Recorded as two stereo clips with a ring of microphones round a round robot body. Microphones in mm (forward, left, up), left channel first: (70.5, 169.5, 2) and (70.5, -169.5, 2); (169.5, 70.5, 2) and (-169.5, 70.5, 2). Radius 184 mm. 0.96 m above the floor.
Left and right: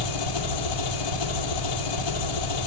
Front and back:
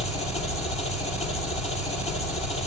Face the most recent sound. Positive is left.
turn(degrees=70)